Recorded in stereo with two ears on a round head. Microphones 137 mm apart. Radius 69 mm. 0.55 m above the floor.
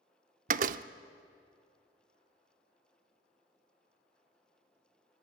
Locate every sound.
0.5 s a door slam: 55° right (ahead or behind), 0.6 m